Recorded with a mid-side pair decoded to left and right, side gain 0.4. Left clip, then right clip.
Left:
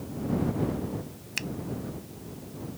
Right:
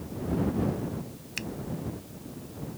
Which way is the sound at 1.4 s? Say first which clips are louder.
Left 3 dB; 25° left.